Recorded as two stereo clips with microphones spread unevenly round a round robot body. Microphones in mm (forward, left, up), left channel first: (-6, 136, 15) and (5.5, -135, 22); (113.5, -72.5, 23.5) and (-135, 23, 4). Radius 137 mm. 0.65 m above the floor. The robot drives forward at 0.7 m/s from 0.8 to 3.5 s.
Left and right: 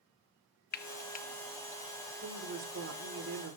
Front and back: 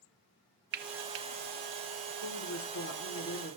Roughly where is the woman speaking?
Ahead right.